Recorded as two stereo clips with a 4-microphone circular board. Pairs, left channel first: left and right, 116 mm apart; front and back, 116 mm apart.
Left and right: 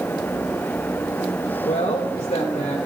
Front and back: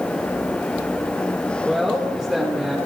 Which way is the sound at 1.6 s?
95° left.